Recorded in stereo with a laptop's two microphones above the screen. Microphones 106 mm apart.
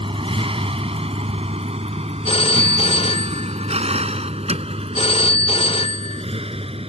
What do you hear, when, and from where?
0.0 s a vehicle: 60° right (ahead or behind); by 6.9 s 70° right (ahead or behind)
2.2 s a phone ringing: 65° left (ahead or behind)